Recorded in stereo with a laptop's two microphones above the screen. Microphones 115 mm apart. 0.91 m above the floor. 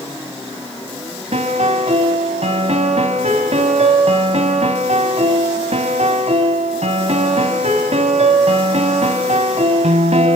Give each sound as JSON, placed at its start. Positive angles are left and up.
{"t": 1.3, "sound": "a piano", "side_deg": -70, "distance_m": 1.6}